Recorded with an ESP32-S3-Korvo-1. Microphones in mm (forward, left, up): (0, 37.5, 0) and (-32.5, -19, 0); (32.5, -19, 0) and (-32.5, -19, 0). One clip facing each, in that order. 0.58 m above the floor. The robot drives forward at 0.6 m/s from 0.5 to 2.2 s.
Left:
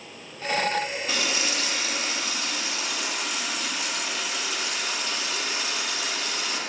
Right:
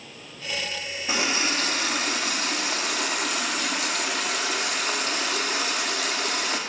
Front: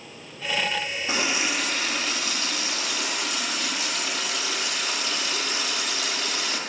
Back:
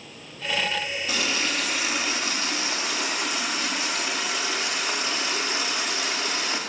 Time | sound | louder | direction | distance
1.1 | a running tap | right 2 dB, front 2 dB | 55° right | 0.7 m